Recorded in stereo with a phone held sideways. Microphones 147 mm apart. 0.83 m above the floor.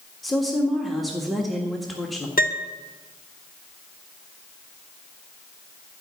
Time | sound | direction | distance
0.2 | a woman speaking | centre (ahead or behind) | 1.6 m
2.4 | a piano | 80° left | 0.8 m